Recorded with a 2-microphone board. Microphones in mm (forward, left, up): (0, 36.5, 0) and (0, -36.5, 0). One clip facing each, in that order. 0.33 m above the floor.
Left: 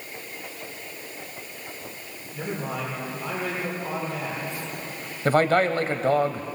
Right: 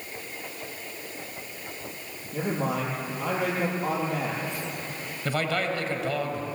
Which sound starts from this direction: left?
A man speaking, at 5.2 s.